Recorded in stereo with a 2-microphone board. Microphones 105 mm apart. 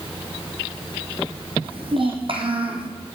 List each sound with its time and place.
1.6 s a child speaking: 55° right (ahead or behind), 3.5 m